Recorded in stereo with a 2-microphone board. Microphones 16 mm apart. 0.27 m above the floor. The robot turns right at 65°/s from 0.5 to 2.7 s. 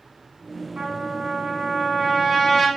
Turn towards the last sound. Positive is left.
turn(degrees=20)